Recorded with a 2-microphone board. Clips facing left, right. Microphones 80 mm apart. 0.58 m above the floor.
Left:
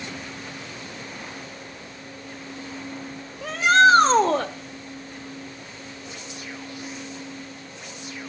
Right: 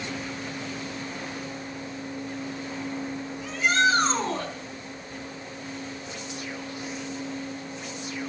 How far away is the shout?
About 1.8 m.